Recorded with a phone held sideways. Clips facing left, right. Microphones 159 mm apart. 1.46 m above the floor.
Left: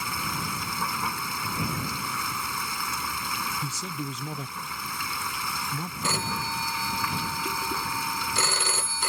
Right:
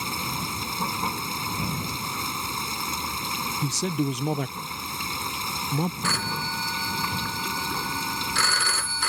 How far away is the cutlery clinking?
I don't hear cutlery clinking.